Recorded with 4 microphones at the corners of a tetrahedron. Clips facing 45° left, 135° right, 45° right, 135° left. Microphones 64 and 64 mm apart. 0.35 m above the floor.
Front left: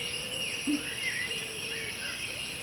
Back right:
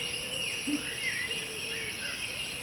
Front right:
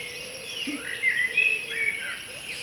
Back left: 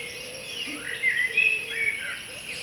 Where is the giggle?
5° right, 0.7 m.